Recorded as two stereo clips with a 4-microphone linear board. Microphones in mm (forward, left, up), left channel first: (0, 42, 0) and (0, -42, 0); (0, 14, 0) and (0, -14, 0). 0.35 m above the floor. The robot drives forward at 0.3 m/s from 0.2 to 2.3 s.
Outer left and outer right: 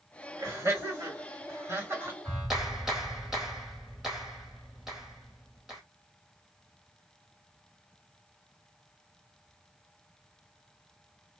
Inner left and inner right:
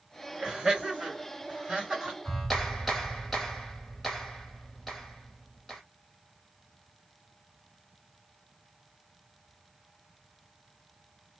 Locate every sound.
0.4 s laughter: 35° right (ahead or behind), 2.0 m; by 2.1 s 30° right (ahead or behind), 2 m
2.2 s a clap: 5° right (ahead or behind), 1.5 m